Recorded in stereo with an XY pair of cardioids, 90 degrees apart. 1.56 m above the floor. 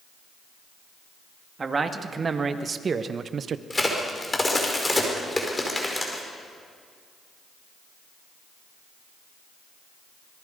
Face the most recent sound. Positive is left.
turn(degrees=20)